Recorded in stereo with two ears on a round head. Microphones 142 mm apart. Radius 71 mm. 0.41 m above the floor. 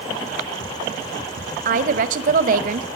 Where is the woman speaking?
50° right (ahead or behind), 2.5 m.